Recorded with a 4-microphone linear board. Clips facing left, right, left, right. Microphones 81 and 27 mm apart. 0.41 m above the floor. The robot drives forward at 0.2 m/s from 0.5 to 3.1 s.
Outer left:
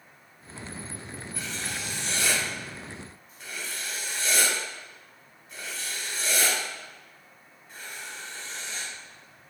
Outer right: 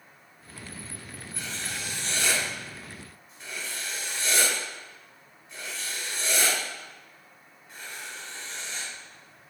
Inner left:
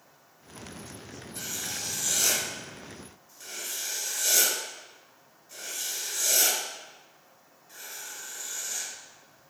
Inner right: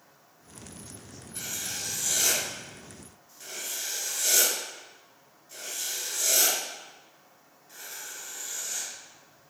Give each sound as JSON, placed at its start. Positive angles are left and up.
{"t": 1.4, "sound": "writing", "side_deg": 5, "distance_m": 1.3}